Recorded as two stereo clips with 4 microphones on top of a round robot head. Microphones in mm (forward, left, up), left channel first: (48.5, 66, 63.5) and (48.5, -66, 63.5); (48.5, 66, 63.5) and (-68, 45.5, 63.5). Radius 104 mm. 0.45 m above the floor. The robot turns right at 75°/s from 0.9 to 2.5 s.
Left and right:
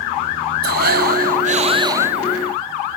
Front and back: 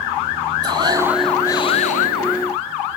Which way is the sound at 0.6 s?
105° right.